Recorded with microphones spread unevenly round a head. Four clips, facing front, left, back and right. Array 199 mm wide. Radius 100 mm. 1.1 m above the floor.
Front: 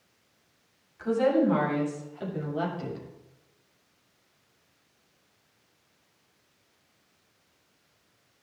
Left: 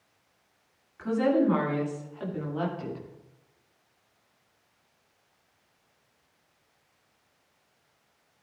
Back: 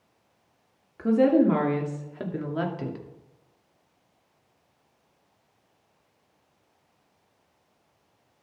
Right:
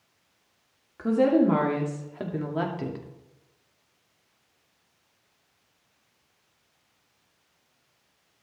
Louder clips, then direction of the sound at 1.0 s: Right 3 dB, back 4 dB; 150° right.